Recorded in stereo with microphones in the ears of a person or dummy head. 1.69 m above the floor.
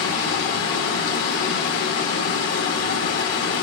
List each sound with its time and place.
0.0 s running water: 50° left (ahead or behind), 1.8 m